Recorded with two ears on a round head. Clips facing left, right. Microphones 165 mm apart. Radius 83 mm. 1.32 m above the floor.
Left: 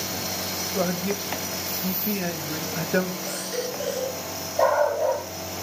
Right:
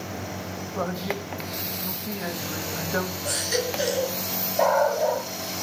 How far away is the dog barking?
About 9 m.